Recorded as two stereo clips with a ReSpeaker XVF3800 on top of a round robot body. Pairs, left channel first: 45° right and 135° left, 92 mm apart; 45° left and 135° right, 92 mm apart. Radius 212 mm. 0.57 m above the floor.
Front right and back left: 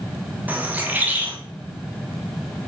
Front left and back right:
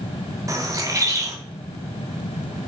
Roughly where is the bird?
Behind.